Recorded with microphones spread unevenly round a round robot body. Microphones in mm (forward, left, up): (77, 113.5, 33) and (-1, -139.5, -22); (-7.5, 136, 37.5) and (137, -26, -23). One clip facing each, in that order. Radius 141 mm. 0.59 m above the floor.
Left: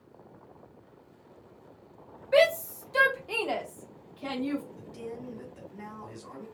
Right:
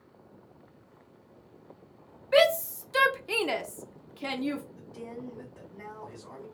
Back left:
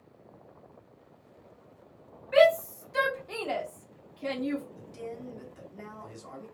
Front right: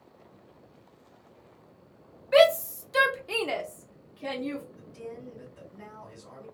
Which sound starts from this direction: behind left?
A man speaking, at 4.8 s.